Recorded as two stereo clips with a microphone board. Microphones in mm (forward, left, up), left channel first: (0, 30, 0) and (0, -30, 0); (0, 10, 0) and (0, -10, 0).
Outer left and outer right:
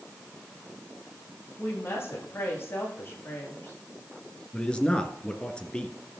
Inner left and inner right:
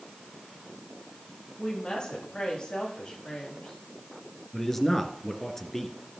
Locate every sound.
1.6 s a woman speaking: 40° left (ahead or behind), 8.5 m
4.5 s a man speaking: 15° left (ahead or behind), 1.8 m